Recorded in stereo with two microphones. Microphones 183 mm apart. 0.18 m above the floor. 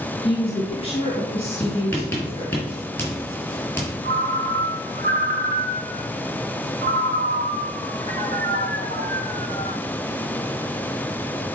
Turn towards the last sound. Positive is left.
turn(degrees=-65)  # may be behind; listen again after turning